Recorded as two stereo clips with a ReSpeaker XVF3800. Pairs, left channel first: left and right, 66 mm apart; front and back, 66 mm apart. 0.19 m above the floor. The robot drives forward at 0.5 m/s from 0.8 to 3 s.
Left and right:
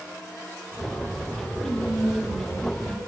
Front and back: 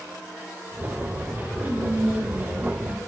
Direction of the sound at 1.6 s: 115° left.